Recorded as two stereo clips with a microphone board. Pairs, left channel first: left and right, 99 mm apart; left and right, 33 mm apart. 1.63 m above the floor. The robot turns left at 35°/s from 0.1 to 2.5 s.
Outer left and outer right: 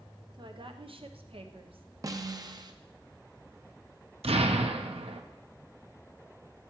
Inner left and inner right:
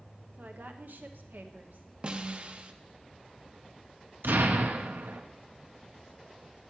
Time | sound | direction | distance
0.3 | a woman speaking | 55° right | 0.8 m
2.0 | a snare drum | 35° right (ahead or behind) | 0.6 m
4.2 | an explosion | 85° right | 0.7 m